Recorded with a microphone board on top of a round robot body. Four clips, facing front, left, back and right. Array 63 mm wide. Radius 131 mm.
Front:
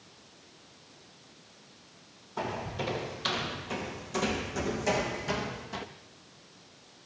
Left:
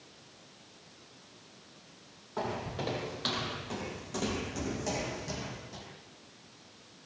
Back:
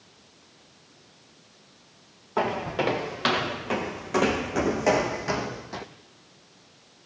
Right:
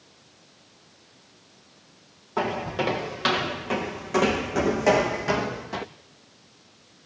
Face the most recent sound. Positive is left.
turn(degrees=-100)